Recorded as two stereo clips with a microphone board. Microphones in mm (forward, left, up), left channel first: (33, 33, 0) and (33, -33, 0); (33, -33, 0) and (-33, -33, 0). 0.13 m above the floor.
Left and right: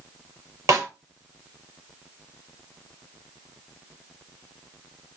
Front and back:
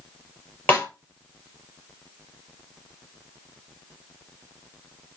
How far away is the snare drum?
About 3 m.